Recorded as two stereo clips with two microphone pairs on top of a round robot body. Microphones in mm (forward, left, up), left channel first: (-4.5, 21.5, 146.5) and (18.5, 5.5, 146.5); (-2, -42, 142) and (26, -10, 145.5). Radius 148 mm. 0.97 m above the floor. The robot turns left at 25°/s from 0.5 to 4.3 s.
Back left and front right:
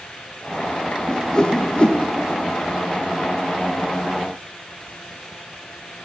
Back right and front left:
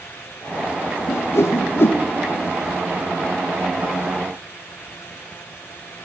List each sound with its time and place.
1.1 s a whoosh: 145° right, 0.6 m; by 2.0 s 165° right, 0.6 m